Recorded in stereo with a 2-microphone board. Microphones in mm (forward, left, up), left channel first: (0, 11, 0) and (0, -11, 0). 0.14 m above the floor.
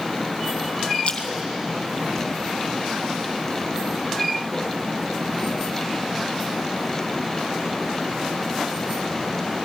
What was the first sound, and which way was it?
A splash, 45° left (ahead or behind).